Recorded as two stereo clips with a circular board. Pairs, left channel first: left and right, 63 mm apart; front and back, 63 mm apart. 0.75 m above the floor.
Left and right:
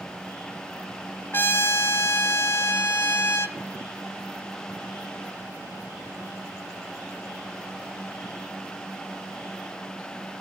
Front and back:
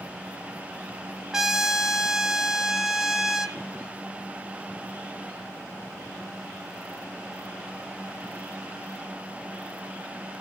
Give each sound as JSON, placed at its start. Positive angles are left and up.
{"t": 1.3, "sound": "a trumpet", "azimuth_deg": 105, "distance_m": 0.7}